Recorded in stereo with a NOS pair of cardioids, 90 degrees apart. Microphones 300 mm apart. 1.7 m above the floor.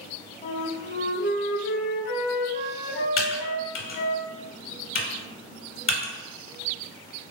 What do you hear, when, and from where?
0.4 s a flute: 35° left, 1.0 m
3.2 s typing on a keyboard: 45° left, 1.2 m